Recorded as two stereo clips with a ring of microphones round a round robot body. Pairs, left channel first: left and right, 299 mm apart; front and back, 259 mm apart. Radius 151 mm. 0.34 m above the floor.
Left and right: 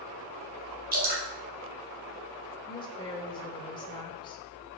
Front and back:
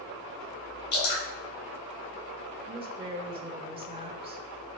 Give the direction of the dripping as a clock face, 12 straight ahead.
1 o'clock.